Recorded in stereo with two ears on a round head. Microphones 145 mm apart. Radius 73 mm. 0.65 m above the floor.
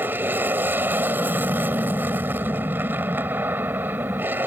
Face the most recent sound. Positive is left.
turn(degrees=-10)  # may be behind; listen again after turning